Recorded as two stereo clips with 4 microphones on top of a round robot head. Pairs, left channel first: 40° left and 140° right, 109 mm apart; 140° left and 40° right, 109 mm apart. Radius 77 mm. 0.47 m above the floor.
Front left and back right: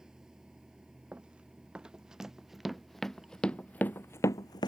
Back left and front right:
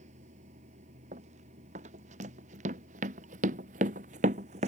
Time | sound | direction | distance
0.0 | running water | 55° right | ?
1.1 | running footsteps | 60° right | ?